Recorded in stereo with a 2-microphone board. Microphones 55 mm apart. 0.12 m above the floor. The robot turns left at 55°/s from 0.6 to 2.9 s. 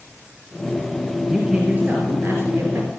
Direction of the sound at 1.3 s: 10° right.